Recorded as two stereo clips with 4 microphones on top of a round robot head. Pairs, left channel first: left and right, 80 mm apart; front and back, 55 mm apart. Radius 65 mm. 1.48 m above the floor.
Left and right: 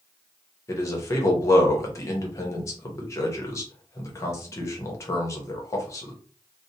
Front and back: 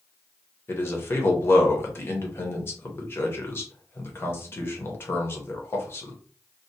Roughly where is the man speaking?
Ahead left.